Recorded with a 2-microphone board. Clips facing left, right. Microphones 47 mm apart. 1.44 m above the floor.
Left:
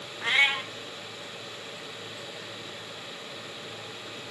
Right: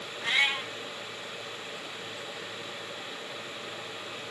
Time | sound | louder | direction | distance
0.2 | a cat meowing | left 3 dB | 20° left (ahead or behind) | 0.6 m